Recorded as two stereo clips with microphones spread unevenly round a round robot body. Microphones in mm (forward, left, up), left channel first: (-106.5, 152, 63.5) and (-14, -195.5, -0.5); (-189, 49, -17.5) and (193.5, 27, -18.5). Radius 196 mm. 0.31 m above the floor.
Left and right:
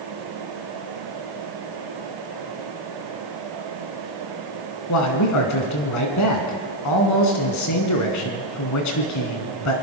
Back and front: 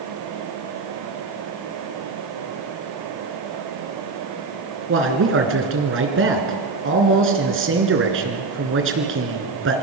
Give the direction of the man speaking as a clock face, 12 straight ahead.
10 o'clock.